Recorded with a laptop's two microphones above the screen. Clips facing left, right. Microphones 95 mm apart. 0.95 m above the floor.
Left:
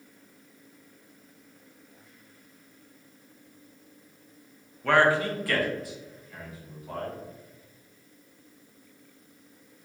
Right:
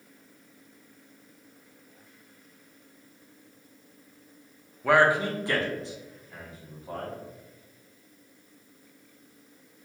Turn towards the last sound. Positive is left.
turn(degrees=-30)  # may be behind; listen again after turning